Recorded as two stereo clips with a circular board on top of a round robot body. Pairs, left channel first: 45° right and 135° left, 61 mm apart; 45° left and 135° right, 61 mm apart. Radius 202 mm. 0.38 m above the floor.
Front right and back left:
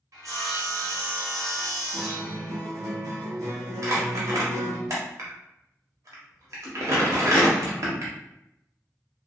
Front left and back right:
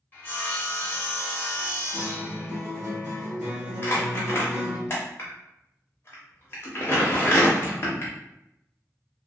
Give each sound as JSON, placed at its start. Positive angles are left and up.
{"t": 0.1, "sound": "sawing", "azimuth_deg": 105, "distance_m": 0.9}
{"t": 1.9, "sound": "a guitar", "azimuth_deg": 150, "distance_m": 1.0}
{"t": 3.8, "sound": "crumpling", "azimuth_deg": 95, "distance_m": 0.5}